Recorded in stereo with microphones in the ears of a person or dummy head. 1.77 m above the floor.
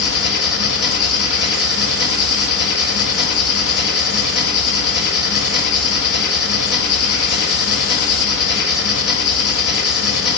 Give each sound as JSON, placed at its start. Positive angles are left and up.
{"t": 0.0, "sound": "an engine running", "side_deg": 65, "distance_m": 2.5}